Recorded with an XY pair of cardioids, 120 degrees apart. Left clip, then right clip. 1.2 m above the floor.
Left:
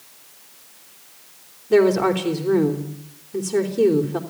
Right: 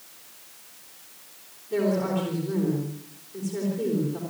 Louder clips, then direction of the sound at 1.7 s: Left 9 dB; 65° left.